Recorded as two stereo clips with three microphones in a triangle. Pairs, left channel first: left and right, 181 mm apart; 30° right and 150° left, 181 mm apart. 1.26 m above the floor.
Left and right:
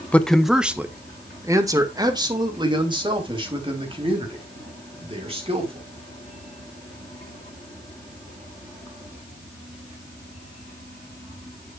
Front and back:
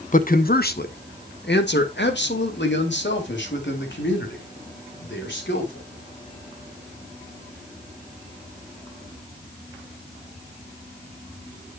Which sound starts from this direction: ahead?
A man speaking, at 0.1 s.